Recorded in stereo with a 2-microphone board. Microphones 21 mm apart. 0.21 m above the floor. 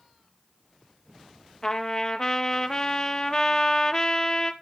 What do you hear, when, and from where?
1.6 s a trumpet: 30° left (ahead or behind), 0.9 m